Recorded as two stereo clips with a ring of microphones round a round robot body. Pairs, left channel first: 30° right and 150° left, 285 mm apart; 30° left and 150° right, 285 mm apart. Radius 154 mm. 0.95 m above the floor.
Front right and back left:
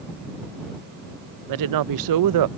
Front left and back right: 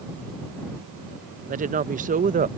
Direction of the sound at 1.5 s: 145° left.